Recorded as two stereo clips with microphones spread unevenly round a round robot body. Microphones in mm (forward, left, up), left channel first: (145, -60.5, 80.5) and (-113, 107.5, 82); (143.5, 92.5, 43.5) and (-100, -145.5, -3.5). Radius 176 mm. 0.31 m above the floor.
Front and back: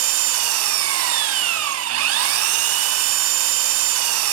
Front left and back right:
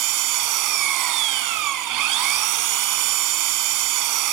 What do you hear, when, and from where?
0.0 s an engine running: 170° right, 1.3 m